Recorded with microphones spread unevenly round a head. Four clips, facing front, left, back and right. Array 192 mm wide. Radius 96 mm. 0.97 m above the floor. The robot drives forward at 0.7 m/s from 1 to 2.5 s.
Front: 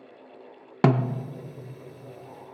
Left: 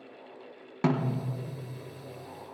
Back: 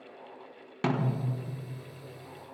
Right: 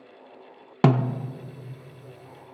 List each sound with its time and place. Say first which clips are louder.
0.8 s a snare drum: right 6 dB, front 7 dB; 75° right, 0.7 m; by 1.3 s 95° right, 0.7 m